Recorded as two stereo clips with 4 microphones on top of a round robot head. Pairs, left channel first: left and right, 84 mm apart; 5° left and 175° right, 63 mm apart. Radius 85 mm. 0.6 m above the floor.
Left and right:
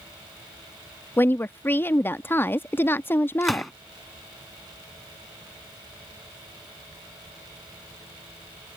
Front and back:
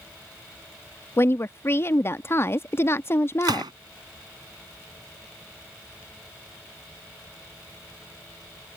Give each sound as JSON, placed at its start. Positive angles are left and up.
{"t": 1.2, "sound": "a woman speaking", "azimuth_deg": 35}
{"t": 3.4, "sound": "a gunshot", "azimuth_deg": 180}